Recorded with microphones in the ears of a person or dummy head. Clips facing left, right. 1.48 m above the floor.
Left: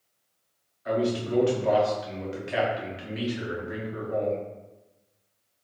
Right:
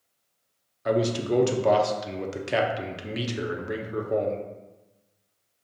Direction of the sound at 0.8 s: 65° right (ahead or behind).